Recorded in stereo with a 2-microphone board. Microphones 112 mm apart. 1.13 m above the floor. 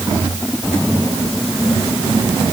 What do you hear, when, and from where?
Only background noise.